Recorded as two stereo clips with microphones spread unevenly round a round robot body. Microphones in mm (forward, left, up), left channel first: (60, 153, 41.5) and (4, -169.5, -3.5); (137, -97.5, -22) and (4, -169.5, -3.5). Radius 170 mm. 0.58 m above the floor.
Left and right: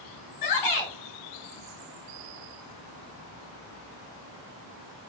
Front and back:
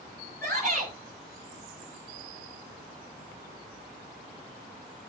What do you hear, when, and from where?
0.4 s a shout: 115° left, 5.5 m